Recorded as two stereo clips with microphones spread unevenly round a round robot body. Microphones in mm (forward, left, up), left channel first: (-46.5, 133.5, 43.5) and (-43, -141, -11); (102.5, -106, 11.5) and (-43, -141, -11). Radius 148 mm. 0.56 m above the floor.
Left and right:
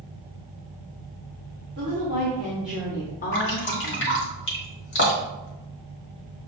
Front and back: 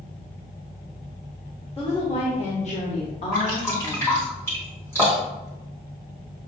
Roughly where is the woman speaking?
Ahead right.